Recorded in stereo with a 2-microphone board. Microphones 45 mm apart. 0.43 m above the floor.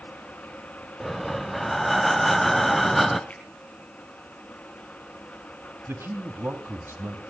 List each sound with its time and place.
1.0 s breathing: 5° left (ahead or behind), 1.1 m
3.3 s a finger snap: 35° left (ahead or behind), 7.5 m
5.9 s a man speaking: 60° right (ahead or behind), 2.5 m